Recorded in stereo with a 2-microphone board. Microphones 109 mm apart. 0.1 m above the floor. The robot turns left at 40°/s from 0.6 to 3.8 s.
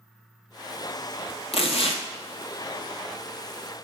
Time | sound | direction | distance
1.5 | tearing paper | 65° left (ahead or behind) | 0.7 m